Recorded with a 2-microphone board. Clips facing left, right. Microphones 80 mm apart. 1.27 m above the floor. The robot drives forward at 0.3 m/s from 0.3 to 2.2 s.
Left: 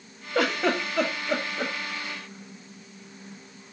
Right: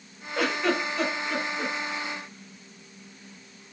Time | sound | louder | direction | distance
0.3 | a giggle | left 1 dB | 75° left (ahead or behind) | 1.1 m